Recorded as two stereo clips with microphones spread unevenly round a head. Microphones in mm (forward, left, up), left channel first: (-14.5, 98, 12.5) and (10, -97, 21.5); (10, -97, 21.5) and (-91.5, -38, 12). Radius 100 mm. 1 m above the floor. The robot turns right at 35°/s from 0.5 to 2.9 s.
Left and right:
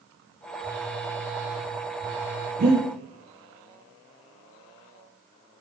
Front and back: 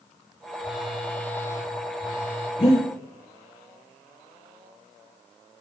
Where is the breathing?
70° right, 2.5 m; by 2.9 s 60° right, 2.5 m.